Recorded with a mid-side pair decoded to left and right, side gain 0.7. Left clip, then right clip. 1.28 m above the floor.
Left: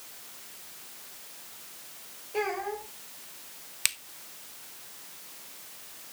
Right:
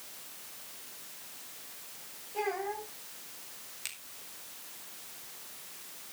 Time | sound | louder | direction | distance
2.3 | a child speaking | left 3 dB | 50° left | 5 m
3.9 | a finger snap | left 13 dB | 50° left | 1.0 m